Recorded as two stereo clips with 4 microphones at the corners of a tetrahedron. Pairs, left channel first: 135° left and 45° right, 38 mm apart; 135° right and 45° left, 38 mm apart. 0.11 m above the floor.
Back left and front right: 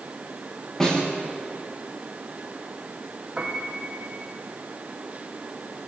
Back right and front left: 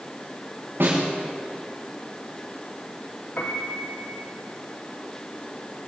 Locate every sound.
0.8 s a snare drum: 60° left, 9 m
3.4 s a piano: 110° right, 3.5 m